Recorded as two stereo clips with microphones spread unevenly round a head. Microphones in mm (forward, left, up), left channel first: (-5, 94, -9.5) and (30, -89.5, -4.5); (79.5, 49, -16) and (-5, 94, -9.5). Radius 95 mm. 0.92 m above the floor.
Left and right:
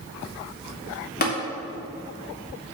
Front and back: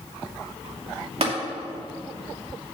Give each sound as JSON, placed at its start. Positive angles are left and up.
{"t": 1.2, "sound": "tapping", "azimuth_deg": 140, "distance_m": 2.5}